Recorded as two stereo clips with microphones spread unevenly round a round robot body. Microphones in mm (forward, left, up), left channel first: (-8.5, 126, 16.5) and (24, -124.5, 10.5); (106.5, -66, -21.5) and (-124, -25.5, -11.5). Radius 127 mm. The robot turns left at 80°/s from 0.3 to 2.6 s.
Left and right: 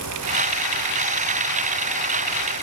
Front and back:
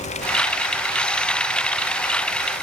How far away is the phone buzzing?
I don't hear a phone buzzing.